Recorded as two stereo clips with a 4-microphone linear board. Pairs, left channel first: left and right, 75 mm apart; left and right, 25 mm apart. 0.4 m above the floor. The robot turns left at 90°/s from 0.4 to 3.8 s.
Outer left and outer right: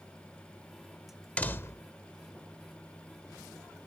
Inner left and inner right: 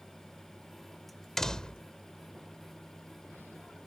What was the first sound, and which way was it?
A door slam, 155° left.